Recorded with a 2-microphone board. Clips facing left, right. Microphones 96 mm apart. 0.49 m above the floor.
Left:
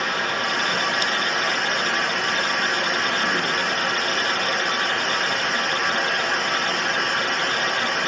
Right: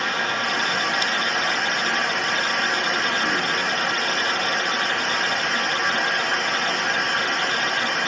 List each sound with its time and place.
0.0 s running water: 5° left (ahead or behind), 1.7 m